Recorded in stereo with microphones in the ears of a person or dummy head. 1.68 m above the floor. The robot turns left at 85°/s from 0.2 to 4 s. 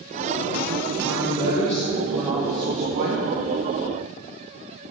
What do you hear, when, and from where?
1.0 s a woman speaking: 105° left, 0.9 m; by 3.2 s 85° right, 0.9 m